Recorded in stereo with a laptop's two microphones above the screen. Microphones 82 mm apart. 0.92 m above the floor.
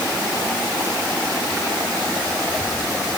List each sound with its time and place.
Only background noise.